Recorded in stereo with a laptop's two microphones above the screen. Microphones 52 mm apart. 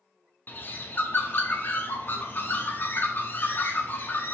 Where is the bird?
40° left (ahead or behind), 0.6 m.